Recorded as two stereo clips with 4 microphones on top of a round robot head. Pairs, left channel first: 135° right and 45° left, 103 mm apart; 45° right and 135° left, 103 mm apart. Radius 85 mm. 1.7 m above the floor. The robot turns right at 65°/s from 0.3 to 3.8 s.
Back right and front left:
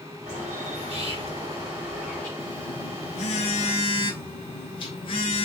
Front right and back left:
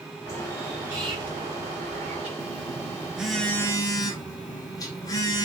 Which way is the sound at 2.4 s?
170° left.